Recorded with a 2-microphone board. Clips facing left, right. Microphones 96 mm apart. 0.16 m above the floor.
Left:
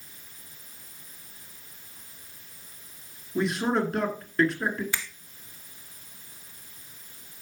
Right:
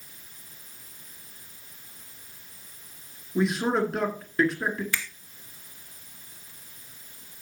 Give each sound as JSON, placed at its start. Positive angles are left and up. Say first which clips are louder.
{"t": 3.4, "sound": "a man speaking", "louder": "right 1 dB", "side_deg": -5, "distance_m": 2.5}
{"t": 4.9, "sound": "a finger snap", "louder": "right 2 dB", "side_deg": 20, "distance_m": 0.9}